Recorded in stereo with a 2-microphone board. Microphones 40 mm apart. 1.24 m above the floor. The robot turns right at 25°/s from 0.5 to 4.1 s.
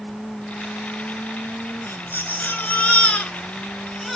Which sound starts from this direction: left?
A baby crying, at 1.9 s.